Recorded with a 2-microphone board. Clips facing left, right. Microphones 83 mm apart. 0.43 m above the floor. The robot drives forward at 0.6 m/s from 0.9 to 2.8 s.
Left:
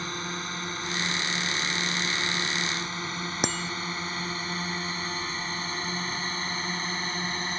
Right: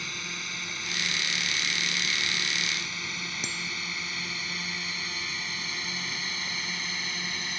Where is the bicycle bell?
70° left (ahead or behind).